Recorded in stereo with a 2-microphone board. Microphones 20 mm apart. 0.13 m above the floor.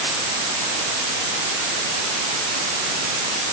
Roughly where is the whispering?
No whispering in this recording.